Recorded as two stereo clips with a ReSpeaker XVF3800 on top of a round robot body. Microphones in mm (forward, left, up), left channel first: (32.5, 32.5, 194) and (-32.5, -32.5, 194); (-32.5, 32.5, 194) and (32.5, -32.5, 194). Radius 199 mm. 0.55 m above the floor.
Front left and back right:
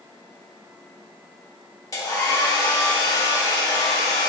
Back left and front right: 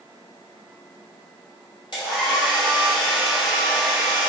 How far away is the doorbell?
I don't hear a doorbell.